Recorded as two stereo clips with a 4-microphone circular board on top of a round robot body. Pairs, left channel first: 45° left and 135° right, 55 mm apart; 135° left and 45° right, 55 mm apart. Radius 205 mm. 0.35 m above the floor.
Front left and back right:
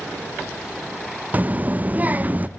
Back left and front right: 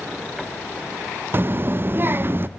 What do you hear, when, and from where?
1.3 s a child speaking: 80° right, 0.5 m